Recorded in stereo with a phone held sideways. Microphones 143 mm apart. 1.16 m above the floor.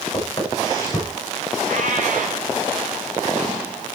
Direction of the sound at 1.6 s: 65° right (ahead or behind).